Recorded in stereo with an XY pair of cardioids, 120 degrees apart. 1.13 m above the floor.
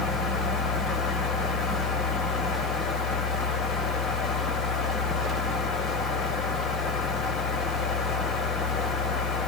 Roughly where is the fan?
Ahead left.